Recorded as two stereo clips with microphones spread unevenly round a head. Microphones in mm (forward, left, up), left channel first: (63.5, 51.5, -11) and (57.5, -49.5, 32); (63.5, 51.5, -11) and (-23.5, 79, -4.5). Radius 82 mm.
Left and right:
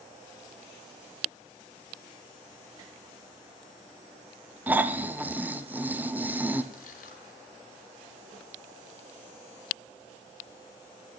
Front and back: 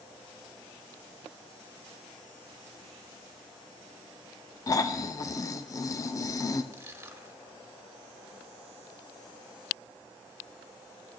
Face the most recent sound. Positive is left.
turn(degrees=110)